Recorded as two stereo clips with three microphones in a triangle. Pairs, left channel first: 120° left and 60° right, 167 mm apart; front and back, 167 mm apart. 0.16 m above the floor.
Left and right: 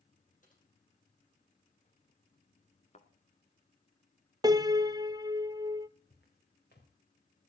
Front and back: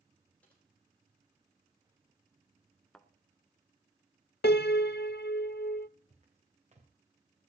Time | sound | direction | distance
0.4 | typing on a keyboard | 80° left | 5.5 m
2.9 | a thud | 90° left | 1.0 m
4.4 | a piano | 5° left | 0.6 m
6.1 | footsteps | 130° left | 5 m